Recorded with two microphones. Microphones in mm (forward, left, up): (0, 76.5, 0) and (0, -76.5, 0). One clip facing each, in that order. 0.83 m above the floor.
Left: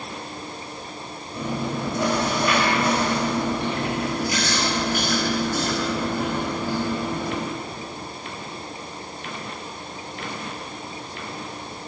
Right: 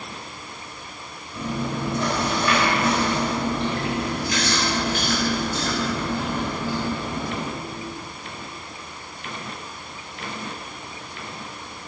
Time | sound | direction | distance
1.3 | chewing | 10° left (ahead or behind) | 4 m